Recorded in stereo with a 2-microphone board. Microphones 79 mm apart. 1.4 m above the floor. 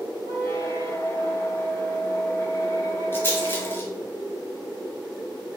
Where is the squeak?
35° left (ahead or behind), 0.8 m.